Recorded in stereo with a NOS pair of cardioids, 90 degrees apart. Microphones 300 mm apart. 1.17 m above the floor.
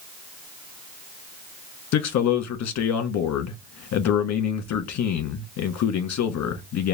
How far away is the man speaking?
About 1.5 m.